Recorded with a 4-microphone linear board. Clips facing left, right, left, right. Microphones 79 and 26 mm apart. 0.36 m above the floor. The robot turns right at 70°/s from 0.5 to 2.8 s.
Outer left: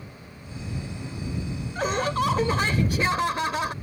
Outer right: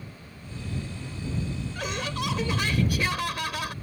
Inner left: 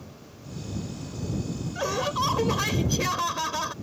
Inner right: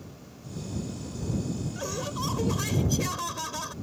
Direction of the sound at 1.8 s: 60° left.